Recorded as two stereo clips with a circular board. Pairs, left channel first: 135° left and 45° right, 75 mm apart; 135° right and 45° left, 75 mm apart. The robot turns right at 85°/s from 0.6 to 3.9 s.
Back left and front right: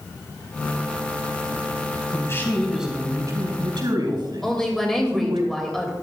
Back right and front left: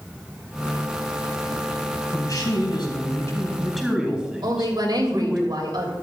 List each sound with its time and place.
2.1 s a man speaking: 175° left, 3.5 m; by 5.4 s 35° right, 3.5 m
4.4 s a woman speaking: 50° left, 3 m